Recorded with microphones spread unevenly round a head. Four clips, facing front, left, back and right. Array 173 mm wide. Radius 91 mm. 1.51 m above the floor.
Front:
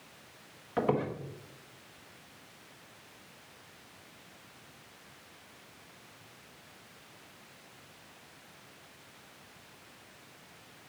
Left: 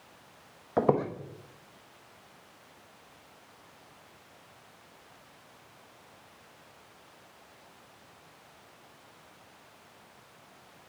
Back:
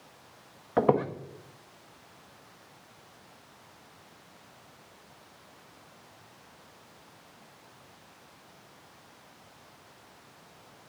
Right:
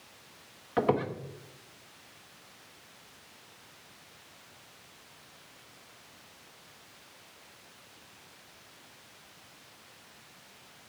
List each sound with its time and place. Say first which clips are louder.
0.8 s a squeak: left 2 dB, back 6 dB; 140° left, 1.0 m